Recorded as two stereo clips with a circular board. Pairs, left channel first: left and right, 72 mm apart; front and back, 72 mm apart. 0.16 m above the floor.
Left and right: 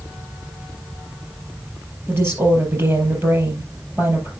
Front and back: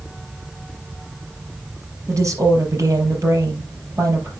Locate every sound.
2.1 s a woman speaking: 140° right, 4 m